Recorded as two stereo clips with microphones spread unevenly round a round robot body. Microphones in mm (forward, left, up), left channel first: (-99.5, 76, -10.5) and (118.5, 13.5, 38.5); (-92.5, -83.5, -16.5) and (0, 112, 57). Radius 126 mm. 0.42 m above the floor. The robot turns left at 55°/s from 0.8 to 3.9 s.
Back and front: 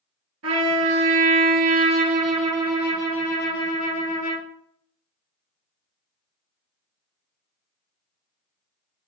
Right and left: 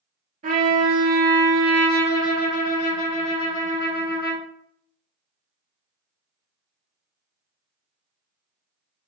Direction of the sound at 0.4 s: 5° left.